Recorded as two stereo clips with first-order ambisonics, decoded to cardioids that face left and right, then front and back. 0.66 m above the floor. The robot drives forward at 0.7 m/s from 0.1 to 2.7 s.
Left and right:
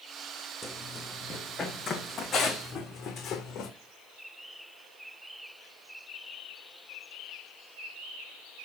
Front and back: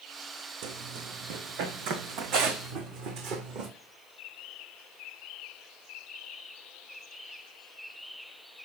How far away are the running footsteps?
About 2.5 m.